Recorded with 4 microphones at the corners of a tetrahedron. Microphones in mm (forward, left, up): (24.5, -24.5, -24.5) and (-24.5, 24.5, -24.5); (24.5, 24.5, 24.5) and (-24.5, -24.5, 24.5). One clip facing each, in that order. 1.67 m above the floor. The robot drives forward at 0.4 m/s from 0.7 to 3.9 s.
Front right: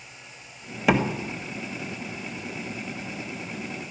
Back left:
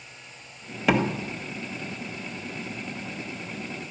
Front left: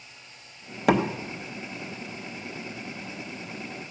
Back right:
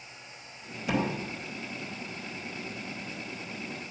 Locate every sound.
0.9 s a door slam: 35° left, 1.4 m; by 1.1 s 40° left, 1.4 m